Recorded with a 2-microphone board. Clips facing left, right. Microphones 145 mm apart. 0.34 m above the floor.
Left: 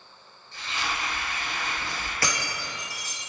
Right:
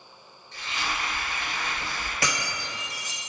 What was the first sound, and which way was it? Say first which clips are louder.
Frying: even; 15° right (ahead or behind).